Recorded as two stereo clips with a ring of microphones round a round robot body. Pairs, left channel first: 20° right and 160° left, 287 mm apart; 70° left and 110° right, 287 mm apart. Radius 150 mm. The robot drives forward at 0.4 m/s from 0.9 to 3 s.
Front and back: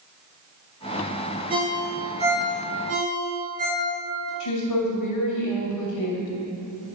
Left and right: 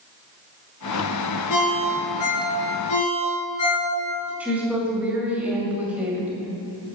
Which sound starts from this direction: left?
A ringtone, at 1.5 s.